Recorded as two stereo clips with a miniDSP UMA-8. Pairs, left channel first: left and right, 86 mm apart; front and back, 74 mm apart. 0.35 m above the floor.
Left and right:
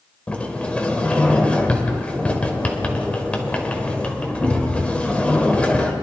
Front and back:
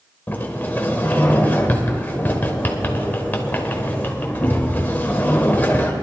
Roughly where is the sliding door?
Ahead left.